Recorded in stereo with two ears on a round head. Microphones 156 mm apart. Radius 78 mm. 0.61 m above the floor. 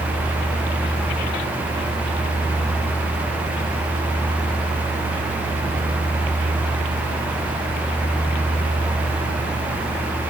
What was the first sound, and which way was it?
Only background noise.